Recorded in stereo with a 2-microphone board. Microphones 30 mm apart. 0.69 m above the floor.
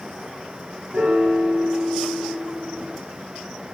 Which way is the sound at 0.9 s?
60° right (ahead or behind).